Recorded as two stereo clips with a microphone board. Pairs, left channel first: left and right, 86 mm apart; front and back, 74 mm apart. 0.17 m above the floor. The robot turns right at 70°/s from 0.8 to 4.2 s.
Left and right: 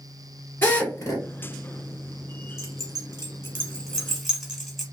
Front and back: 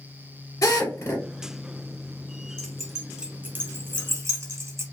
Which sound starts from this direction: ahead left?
A drill, at 0.6 s.